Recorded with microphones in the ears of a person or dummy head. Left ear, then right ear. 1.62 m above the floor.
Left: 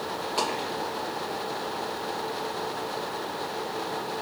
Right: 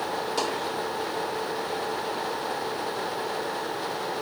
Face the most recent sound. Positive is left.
turn(degrees=-20)  # may be behind; listen again after turning